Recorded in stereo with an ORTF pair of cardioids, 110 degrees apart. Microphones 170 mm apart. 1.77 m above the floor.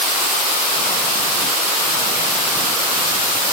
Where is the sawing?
No sawing in this recording.